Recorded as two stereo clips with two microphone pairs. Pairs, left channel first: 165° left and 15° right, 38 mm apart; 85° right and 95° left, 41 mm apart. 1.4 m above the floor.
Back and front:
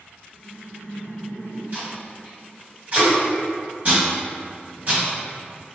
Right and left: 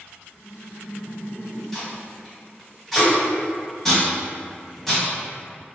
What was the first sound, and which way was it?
Laughter, 20° left.